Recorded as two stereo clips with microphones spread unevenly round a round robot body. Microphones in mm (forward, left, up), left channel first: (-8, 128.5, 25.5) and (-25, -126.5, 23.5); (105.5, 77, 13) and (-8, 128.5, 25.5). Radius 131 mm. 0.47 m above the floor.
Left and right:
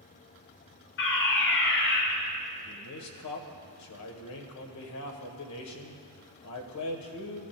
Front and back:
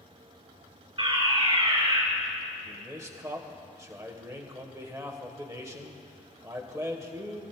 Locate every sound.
1.0 s a fire alarm: 115° left, 3.5 m
2.6 s a man speaking: 90° left, 1.8 m